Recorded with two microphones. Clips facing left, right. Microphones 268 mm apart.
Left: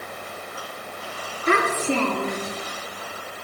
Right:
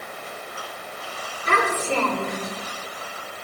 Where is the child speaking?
75° left (ahead or behind), 6 m.